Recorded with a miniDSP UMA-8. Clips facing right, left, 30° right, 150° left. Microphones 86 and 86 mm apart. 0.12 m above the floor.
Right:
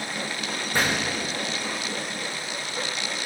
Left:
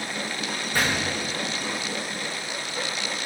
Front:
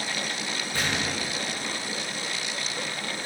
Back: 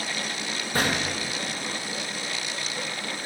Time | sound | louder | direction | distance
0.7 | a gunshot | even, back 4 dB | 160° right | 4.5 m